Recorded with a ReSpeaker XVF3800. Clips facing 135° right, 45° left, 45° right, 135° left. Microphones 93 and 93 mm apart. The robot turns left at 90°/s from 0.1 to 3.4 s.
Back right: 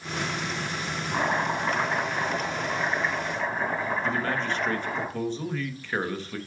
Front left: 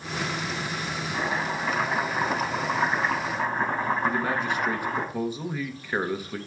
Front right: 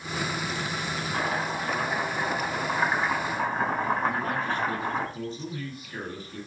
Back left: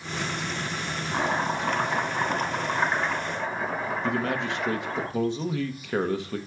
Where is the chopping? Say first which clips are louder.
Back right 3 dB, back left 4 dB; 165° right, 5.5 m; by 5.0 s 10° right, 5.5 m.